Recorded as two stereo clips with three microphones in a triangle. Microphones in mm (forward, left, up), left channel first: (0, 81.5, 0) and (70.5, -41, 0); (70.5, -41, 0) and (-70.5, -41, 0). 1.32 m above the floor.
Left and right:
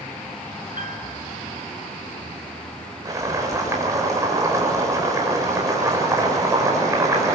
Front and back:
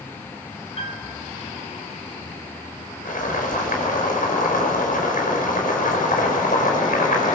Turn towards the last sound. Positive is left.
turn(degrees=10)